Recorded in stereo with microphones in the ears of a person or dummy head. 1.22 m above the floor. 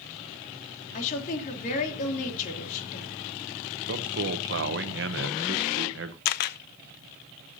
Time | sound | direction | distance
0.9 | a woman speaking | 40° left (ahead or behind) | 2.5 m
3.9 | a man speaking | 65° right (ahead or behind) | 1.0 m
6.2 | a camera shutter | 45° left (ahead or behind) | 0.6 m